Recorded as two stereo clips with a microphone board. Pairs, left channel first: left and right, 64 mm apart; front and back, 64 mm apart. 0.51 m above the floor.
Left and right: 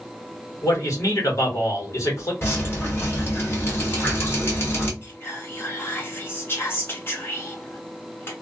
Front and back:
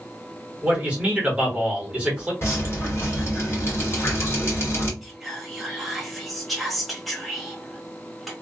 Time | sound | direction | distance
0.6 | a man speaking | 115° left | 1.3 m
2.4 | dripping | 45° left | 1.3 m
5.0 | whispering | 90° left | 1.0 m